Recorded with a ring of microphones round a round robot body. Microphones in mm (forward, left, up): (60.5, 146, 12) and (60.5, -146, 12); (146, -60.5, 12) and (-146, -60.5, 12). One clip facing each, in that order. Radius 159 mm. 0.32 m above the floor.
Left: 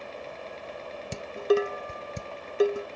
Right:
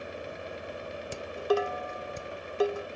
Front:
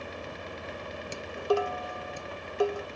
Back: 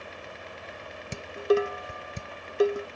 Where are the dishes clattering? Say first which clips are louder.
Left 4 dB, back 4 dB; 130° left.